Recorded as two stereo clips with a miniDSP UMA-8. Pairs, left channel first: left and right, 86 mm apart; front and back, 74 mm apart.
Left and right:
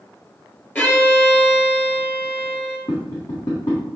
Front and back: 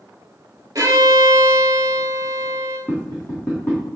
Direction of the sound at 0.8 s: 155° left.